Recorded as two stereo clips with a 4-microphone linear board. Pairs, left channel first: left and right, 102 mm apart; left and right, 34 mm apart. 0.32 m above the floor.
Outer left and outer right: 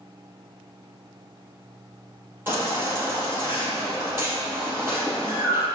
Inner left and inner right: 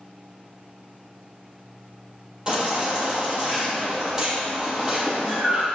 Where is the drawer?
I don't hear a drawer.